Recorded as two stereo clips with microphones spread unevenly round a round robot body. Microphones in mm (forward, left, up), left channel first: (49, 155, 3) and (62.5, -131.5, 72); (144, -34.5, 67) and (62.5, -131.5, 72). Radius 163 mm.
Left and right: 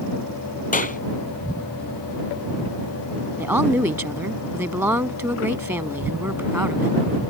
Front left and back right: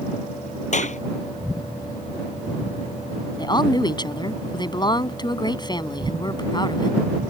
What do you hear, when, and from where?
0.7 s a clap: 30° left
3.4 s a woman speaking: 5° right